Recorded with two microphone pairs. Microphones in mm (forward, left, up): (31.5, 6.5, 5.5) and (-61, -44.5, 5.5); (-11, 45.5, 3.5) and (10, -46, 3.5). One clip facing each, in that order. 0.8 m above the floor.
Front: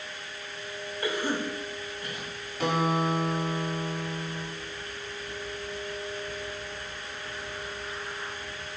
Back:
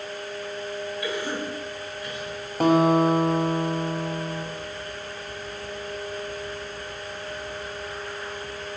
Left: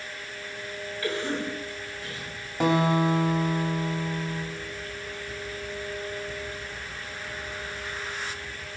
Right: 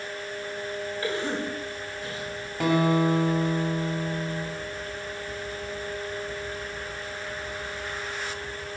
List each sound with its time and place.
1.0 s a cough: 20° right, 4 m
2.6 s a guitar: 175° left, 3 m